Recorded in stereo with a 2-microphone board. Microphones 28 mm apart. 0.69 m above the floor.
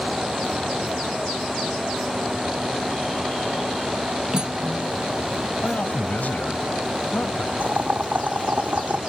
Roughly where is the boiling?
Right.